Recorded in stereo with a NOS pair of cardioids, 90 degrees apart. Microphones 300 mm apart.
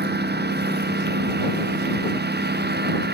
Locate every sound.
0.0 s a lawn mower: 35° right